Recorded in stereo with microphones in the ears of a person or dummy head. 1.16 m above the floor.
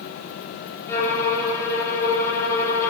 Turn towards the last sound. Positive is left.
turn(degrees=20)  # may be behind; listen again after turning